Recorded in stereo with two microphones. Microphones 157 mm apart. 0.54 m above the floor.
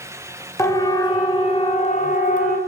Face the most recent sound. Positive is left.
turn(degrees=60)  # may be behind; listen again after turning